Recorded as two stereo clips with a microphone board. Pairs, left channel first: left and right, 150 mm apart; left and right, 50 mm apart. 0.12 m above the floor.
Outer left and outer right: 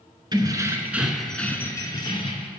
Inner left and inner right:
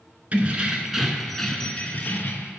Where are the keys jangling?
30° right (ahead or behind), 1.0 m; by 2.5 s 40° left (ahead or behind), 1.1 m.